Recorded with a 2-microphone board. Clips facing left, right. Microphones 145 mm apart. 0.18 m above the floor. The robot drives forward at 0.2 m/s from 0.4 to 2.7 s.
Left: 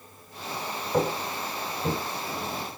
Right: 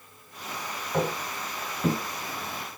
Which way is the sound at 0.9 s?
20° left (ahead or behind).